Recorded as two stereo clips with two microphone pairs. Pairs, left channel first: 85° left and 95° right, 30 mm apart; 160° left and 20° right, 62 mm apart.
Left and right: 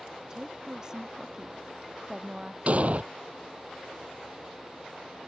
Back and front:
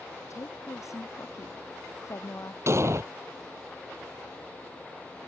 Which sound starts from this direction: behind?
A woman speaking, at 0.3 s.